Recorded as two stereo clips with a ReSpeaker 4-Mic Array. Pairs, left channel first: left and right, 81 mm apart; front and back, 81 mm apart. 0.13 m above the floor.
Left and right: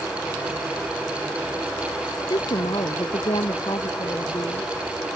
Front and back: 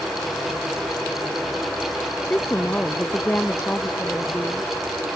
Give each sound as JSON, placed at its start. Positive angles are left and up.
{"t": 2.3, "sound": "a woman speaking", "azimuth_deg": 70}